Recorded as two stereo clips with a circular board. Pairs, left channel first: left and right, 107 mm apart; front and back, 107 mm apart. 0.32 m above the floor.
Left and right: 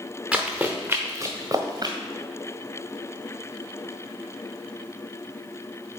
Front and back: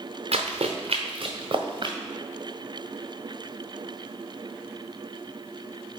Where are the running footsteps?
175° right, 1.4 m; by 1.9 s 140° right, 1.4 m.